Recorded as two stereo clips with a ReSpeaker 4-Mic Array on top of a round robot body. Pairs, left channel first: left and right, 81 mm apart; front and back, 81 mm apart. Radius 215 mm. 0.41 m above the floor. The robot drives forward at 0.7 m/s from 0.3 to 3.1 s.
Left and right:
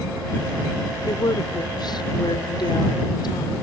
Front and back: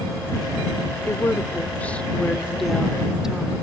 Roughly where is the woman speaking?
Ahead left.